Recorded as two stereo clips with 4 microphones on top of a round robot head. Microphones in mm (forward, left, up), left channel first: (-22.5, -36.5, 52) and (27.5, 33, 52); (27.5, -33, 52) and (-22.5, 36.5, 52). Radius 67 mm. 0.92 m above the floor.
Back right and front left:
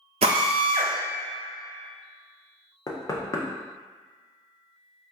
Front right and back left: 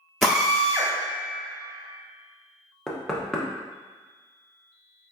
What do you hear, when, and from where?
0.2 s a drill: 35° left, 0.6 m
2.9 s knocking: 135° right, 0.6 m